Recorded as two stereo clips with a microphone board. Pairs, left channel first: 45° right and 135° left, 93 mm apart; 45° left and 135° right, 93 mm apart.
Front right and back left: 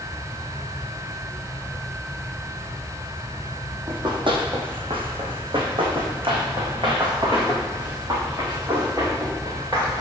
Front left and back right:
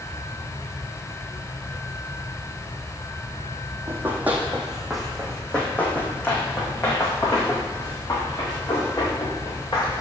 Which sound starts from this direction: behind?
Running footsteps, at 3.9 s.